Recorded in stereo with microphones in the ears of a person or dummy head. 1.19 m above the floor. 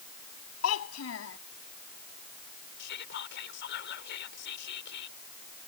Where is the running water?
I don't hear running water.